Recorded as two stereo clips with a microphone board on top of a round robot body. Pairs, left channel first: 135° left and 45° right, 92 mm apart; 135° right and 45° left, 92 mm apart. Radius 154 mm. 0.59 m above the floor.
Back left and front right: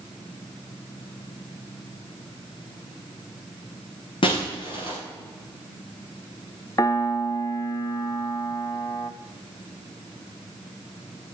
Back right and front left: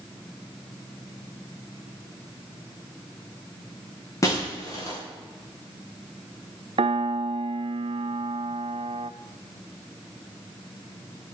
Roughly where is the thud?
No thud in this recording.